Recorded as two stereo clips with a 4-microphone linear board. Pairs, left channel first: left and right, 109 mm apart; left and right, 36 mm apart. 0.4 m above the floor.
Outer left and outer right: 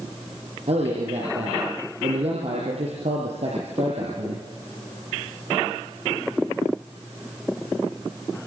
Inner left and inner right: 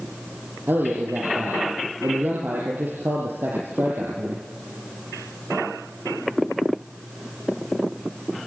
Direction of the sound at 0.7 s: 75° right (ahead or behind).